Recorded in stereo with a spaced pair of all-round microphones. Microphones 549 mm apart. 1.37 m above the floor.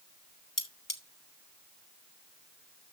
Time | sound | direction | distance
0.6 | cutlery clinking | 35° left (ahead or behind) | 1.3 m